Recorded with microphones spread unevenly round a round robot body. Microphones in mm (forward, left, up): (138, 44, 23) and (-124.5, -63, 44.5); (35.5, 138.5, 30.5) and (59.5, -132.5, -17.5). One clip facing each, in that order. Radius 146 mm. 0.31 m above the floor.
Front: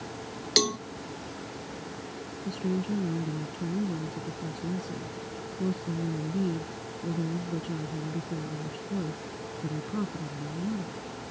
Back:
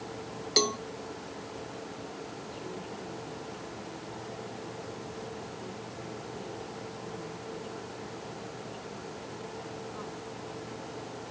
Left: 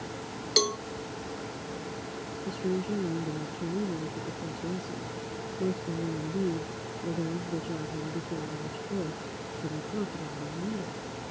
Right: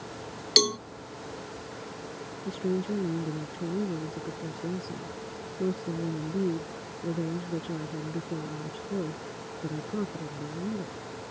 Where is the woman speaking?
Straight ahead.